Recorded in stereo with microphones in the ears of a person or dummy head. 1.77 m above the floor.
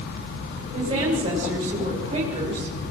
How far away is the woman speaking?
About 7 m.